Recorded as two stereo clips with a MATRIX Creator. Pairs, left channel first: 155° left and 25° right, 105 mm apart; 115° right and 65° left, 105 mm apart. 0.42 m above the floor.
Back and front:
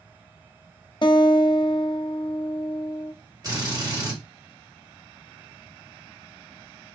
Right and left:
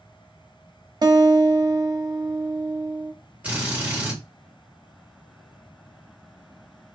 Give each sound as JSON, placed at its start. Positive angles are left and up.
{"t": 1.0, "sound": "a guitar", "azimuth_deg": 120, "distance_m": 0.5}
{"t": 3.4, "sound": "a drill", "azimuth_deg": 0, "distance_m": 1.8}